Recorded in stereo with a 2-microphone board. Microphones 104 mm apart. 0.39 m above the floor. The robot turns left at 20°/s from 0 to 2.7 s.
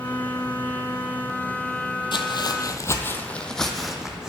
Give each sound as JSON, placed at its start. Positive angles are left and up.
{"t": 2.1, "sound": "footsteps", "side_deg": 50, "distance_m": 0.7}